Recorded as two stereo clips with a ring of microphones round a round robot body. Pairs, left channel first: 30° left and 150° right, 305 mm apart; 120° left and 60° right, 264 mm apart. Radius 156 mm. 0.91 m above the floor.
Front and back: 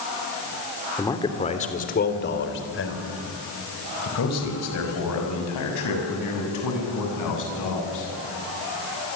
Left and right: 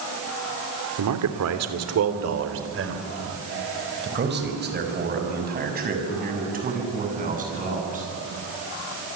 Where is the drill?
I don't hear a drill.